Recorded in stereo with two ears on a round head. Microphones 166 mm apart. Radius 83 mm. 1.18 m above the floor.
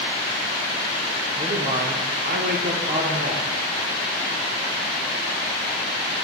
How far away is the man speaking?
About 0.9 m.